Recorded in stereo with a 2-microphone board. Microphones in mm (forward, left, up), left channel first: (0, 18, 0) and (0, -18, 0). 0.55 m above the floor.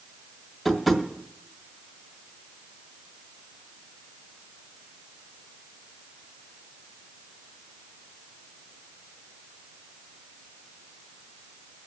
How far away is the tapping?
About 1.8 m.